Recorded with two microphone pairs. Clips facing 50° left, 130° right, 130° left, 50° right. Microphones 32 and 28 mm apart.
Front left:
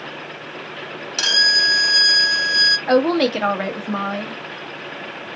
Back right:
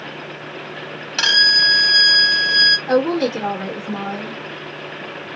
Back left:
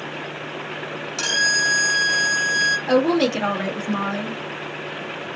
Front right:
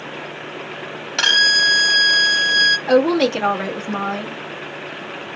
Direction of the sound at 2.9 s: 30° left.